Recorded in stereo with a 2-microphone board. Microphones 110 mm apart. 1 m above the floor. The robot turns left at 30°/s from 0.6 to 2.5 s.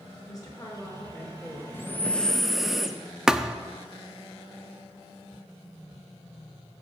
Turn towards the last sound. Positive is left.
turn(degrees=-5)  # may be behind; listen again after turning